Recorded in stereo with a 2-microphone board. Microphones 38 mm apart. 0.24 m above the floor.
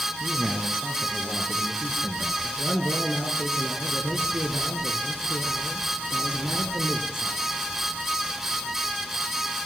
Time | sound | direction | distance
0.2 | a man speaking | 5° right (ahead or behind) | 5 m
2.4 | a man speaking | 65° left (ahead or behind) | 3 m